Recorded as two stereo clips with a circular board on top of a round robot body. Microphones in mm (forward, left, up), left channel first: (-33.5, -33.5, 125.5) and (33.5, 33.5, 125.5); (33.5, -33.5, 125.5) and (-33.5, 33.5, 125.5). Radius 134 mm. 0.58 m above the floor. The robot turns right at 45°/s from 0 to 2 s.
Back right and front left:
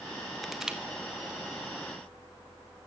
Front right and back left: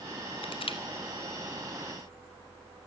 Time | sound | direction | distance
0.4 | crushing | 50° right | 2.5 m